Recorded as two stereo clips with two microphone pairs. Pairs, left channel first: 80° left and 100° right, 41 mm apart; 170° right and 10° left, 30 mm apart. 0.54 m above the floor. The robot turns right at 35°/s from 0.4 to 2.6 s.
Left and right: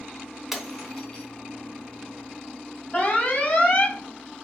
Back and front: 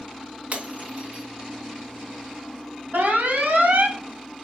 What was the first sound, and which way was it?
Breaking glass, 20° right.